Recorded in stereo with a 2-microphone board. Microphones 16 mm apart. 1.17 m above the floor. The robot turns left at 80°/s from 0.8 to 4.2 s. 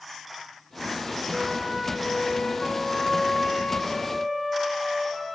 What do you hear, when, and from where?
1.3 s a flute: 135° right, 1.1 m; by 5.4 s 5° right, 1.1 m